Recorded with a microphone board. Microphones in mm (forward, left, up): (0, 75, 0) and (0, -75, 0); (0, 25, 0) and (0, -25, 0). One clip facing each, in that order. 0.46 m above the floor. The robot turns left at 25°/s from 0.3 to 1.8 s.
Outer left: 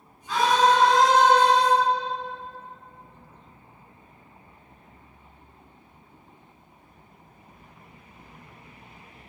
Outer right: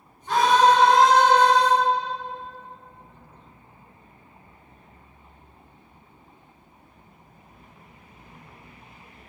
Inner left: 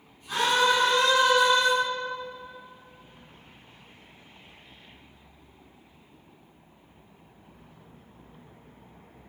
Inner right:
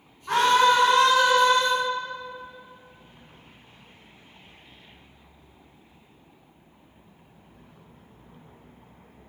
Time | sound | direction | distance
0.3 | a scream | 90° right | 4.5 m